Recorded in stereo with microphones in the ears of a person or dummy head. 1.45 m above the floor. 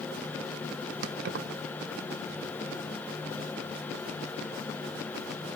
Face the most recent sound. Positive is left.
turn(degrees=-60)  # may be behind; listen again after turning